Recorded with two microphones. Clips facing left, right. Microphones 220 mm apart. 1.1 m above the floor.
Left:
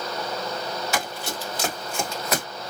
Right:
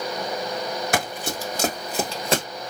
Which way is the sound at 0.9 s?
55° right (ahead or behind).